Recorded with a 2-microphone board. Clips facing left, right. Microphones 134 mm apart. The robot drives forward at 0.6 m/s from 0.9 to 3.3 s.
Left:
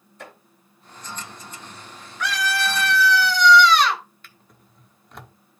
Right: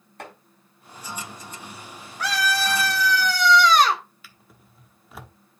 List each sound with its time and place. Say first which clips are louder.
0.2 s chopping: right 2 dB; 65° right (ahead or behind), 6 m
2.2 s a scream: even; 35° right (ahead or behind), 2.5 m; by 4.0 s 45° right (ahead or behind), 2 m
4.2 s a drawer: even; 5° right (ahead or behind), 1.0 m